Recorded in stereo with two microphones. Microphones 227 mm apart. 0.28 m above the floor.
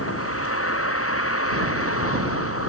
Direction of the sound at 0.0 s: 80° left.